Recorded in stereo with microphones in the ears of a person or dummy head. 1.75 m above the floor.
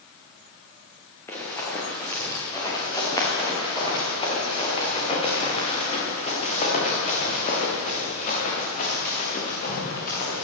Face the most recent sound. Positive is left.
turn(degrees=55)  # may be behind; listen again after turning